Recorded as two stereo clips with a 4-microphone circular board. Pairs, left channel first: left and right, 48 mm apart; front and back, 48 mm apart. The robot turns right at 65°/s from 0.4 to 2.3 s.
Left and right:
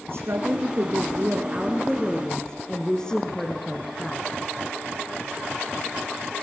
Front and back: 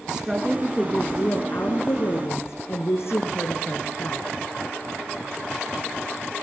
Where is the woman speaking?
105° right, 2.5 m; by 4.2 s 20° left, 2.5 m.